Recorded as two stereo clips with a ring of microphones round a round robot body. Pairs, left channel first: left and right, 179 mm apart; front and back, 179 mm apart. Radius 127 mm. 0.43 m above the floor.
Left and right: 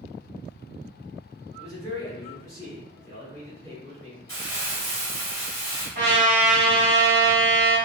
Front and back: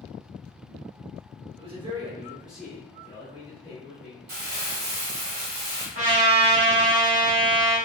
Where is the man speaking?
155° left, 1.3 m; by 4.2 s 15° left, 1.5 m.